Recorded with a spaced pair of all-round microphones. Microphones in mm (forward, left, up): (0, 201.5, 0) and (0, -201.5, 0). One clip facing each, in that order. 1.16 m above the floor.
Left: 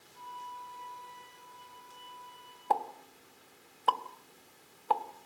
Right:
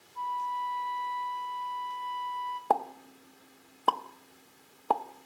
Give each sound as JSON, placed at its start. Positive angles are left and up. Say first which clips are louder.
{"t": 0.1, "sound": "a flute", "louder": "right 12 dB", "side_deg": -5, "distance_m": 4.5}
{"t": 2.7, "sound": "a pop", "louder": "right 4 dB", "side_deg": -65, "distance_m": 0.8}